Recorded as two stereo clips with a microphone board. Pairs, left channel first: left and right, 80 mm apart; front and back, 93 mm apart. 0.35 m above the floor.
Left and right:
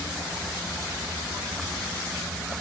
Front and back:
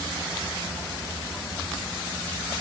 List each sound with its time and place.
Only background noise.